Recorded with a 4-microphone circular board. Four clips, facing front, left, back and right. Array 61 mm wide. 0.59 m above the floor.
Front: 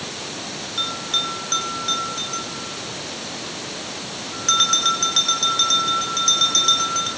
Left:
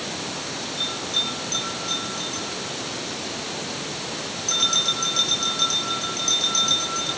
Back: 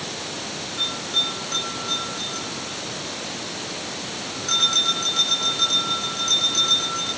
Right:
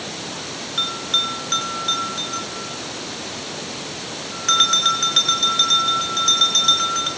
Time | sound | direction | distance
0.8 | a bell | 60° right | 7.5 m